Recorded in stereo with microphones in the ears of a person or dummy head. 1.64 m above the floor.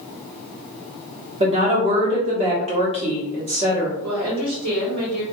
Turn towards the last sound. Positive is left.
turn(degrees=-75)  # may be behind; listen again after turning